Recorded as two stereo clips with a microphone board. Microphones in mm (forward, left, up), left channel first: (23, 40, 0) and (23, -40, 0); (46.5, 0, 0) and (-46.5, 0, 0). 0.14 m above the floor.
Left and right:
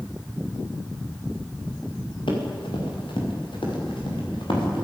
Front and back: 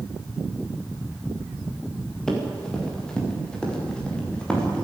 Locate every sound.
2.3 s running footsteps: 85° left, 6 m; by 4.8 s 80° left, 8 m